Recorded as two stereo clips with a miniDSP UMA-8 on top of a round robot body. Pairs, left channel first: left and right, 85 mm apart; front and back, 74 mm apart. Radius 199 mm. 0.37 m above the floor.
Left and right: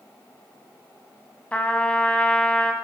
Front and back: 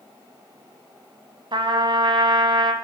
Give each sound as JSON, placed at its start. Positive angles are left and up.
{"t": 1.5, "sound": "a trumpet", "azimuth_deg": 165, "distance_m": 1.0}